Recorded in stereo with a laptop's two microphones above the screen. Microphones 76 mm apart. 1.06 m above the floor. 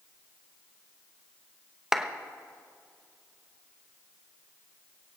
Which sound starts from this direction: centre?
A clap, at 1.9 s.